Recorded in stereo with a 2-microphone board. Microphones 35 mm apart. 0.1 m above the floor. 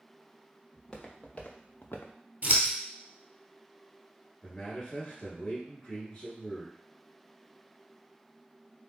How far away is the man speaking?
About 1.7 m.